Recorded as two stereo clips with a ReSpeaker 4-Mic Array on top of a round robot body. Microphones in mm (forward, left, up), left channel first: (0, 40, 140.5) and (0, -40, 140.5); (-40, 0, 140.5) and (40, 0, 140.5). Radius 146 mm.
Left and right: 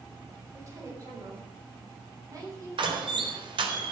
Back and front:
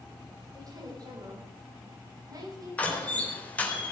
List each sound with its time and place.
0.5 s a woman speaking: 40° right, 5.5 m; by 3.4 s 45° right, 8.5 m
2.8 s a door slam: 110° right, 3.5 m